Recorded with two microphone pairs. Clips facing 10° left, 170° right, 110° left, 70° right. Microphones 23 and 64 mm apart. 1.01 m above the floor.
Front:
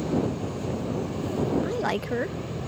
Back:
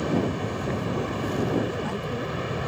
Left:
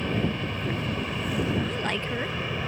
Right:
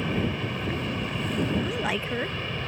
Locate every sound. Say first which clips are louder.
0.0 s an aircraft: back 1 dB, even; 155° right; by 2.7 s 170° right
1.6 s a woman speaking: front 2 dB, right 1 dB; 10° left